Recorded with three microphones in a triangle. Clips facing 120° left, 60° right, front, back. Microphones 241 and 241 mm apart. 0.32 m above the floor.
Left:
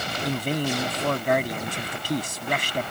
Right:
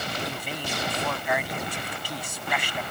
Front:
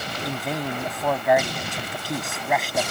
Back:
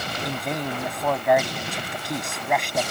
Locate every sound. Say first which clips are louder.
0.2 s a man speaking: left 8 dB, front 1 dB; 90° left